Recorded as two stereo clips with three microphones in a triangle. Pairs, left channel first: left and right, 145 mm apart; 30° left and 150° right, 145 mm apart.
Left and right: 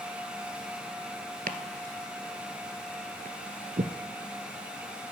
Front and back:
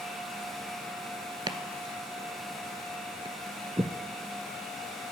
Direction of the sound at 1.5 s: 90° right.